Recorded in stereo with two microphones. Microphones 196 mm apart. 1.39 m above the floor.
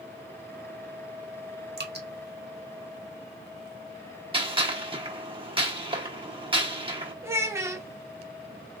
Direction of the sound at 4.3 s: 25° right (ahead or behind).